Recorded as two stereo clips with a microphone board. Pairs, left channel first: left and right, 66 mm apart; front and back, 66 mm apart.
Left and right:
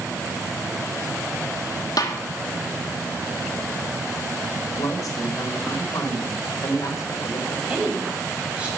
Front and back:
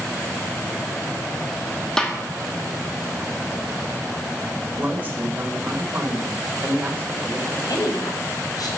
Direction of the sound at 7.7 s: 20° right.